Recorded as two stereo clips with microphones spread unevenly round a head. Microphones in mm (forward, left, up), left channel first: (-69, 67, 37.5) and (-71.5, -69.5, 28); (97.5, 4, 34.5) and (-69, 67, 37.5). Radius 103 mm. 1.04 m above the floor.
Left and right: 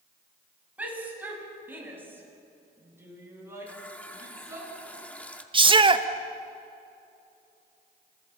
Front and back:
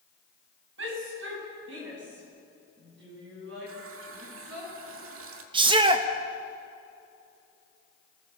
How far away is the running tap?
About 1.9 m.